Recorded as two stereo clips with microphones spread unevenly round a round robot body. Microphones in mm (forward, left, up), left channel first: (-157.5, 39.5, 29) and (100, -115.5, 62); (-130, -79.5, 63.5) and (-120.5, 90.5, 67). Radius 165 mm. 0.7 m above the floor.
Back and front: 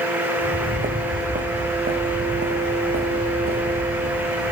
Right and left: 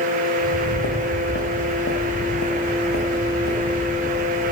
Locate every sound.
0.4 s footsteps: 95° right, 3 m; by 4.5 s 75° right, 5 m